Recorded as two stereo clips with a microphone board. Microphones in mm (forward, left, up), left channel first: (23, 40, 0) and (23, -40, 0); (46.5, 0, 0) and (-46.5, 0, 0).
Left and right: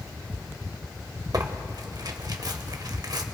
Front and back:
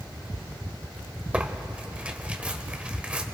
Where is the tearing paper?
105° right, 0.9 m.